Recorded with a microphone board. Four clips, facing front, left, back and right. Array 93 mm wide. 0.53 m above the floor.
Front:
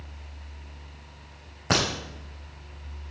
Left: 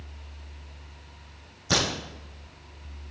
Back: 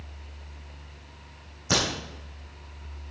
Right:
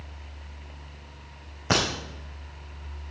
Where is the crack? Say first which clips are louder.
Right 2 dB, front 2 dB; 50° right, 3.5 m.